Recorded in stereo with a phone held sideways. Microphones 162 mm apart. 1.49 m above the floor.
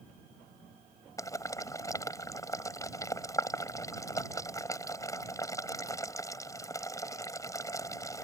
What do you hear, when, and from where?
1.2 s boiling: 20° left (ahead or behind)